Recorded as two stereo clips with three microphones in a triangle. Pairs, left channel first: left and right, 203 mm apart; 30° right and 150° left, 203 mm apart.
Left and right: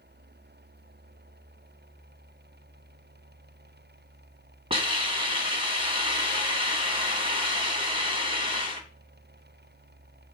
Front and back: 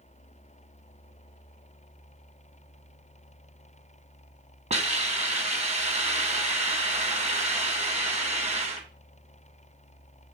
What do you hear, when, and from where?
4.7 s a hiss: 155° right, 2 m